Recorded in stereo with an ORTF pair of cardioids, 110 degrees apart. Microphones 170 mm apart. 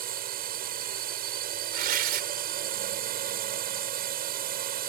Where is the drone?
65° right.